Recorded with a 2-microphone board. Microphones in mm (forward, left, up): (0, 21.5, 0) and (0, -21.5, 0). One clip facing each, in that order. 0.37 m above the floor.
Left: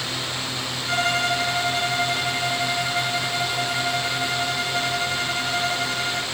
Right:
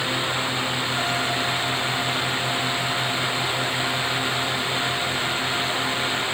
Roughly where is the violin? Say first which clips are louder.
Left 2 dB; left.